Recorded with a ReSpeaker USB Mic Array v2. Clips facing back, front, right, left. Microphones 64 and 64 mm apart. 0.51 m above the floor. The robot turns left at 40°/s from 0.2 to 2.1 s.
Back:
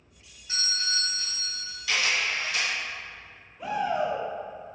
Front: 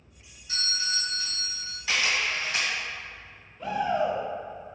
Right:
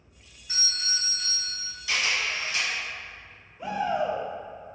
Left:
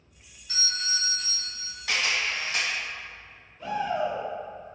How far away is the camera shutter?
About 1.5 m.